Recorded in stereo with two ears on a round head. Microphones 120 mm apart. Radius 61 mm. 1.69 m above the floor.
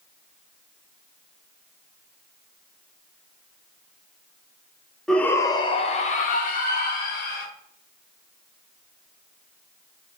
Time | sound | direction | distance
5.1 | a shout | 5° left (ahead or behind) | 0.6 m